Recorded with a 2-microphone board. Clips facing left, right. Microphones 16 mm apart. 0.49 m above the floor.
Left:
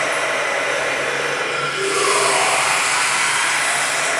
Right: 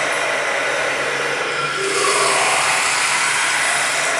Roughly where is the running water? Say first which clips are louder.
Even; right.